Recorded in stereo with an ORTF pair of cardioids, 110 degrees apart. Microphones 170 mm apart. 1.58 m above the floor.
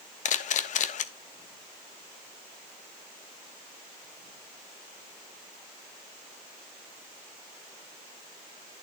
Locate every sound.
0.2 s a camera shutter: 50° left, 0.8 m